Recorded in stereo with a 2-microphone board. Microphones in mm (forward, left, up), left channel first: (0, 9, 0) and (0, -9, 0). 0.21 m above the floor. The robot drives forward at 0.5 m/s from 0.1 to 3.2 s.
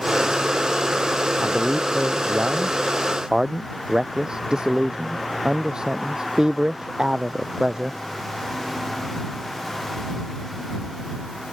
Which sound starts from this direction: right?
A man speaking, at 1.4 s.